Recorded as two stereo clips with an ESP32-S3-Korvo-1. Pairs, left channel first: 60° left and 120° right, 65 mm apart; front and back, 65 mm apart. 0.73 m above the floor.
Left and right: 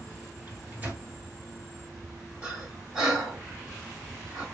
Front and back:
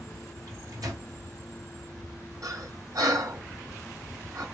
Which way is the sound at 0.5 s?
170° left.